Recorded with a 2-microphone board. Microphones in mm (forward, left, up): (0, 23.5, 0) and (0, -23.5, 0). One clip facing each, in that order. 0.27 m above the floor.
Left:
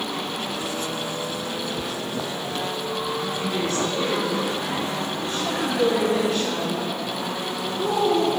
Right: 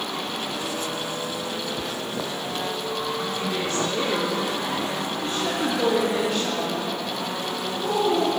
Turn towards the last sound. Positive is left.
turn(degrees=-75)  # may be behind; listen again after turning